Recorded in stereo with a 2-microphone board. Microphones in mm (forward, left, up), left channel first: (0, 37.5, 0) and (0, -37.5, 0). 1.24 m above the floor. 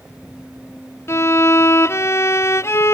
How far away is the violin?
About 0.6 m.